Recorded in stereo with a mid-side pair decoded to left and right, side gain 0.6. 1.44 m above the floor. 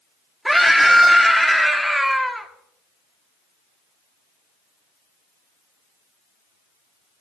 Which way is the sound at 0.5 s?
5° right.